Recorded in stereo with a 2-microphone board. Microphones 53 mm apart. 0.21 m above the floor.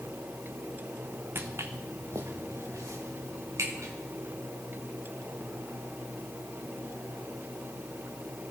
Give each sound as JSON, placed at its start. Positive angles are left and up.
{"t": 1.4, "sound": "footsteps", "side_deg": -50, "distance_m": 1.0}